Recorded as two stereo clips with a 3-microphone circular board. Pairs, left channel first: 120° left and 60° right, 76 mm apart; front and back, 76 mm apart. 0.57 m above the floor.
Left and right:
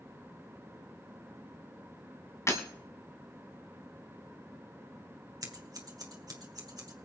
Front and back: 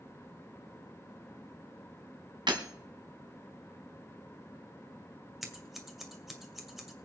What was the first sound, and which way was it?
Breaking glass, 170° left.